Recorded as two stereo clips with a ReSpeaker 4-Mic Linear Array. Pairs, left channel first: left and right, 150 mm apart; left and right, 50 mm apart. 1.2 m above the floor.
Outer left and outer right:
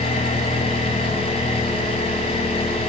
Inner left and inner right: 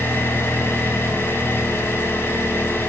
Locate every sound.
0.0 s an engine running: 40° left (ahead or behind), 5.5 m